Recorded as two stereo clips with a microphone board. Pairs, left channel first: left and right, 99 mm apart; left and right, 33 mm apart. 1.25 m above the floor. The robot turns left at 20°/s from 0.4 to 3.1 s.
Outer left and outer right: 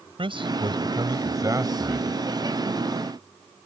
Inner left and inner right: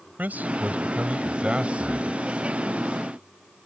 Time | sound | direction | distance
0.2 | a man speaking | 125° right | ?